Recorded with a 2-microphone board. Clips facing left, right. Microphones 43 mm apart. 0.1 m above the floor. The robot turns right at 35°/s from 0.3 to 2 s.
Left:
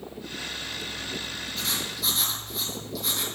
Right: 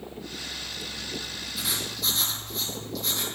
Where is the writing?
10° right (ahead or behind), 3.5 m; by 3.2 s 5° left (ahead or behind), 3.5 m.